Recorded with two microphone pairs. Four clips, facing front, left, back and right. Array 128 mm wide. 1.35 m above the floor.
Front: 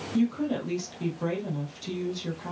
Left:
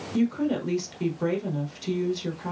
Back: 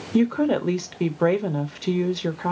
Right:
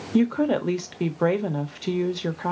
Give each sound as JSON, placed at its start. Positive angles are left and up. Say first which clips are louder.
{"t": 0.1, "sound": "a woman speaking", "louder": "right 4 dB, back 6 dB", "azimuth_deg": -140, "distance_m": 0.9}